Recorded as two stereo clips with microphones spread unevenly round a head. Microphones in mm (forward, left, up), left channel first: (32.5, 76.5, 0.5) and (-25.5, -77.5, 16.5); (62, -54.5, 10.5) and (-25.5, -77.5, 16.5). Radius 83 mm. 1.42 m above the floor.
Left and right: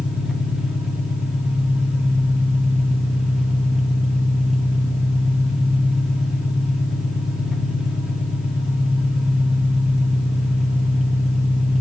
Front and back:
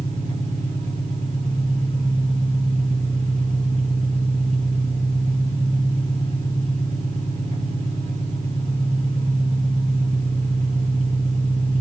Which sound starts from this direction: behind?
An engine running, at 0.0 s.